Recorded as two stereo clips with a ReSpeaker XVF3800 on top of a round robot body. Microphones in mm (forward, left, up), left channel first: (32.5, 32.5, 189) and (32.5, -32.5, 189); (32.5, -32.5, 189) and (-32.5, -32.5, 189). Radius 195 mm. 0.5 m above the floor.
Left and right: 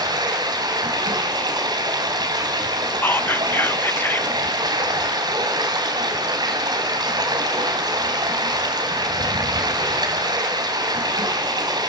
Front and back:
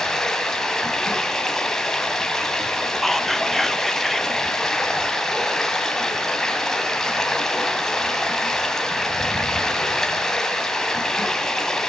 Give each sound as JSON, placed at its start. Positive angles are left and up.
{"t": 0.0, "sound": "running water", "azimuth_deg": -85, "distance_m": 2.5}
{"t": 3.0, "sound": "whispering", "azimuth_deg": 85, "distance_m": 0.7}